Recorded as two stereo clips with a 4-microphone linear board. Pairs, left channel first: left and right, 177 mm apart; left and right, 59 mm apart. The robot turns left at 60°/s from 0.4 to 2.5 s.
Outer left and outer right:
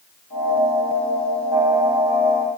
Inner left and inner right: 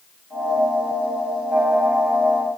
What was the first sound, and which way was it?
Only background noise.